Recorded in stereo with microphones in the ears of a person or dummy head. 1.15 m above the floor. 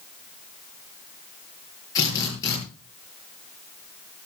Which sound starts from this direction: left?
A drill, at 1.9 s.